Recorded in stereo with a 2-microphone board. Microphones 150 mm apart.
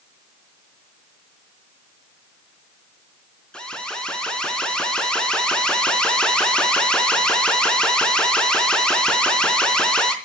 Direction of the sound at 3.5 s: 5° left (ahead or behind).